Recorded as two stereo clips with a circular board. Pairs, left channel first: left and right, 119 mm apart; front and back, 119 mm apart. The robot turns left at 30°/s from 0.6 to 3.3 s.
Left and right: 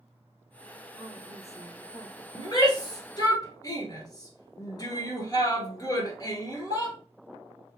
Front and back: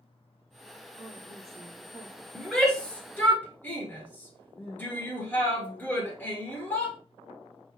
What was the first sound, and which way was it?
A woman speaking, 160° right.